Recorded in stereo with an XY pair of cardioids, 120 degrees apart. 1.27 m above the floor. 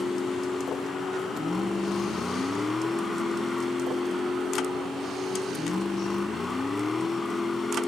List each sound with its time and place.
0.0 s a vehicle: 15° left